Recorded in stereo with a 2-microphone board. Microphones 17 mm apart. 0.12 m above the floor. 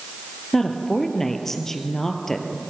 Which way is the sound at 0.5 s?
20° left (ahead or behind).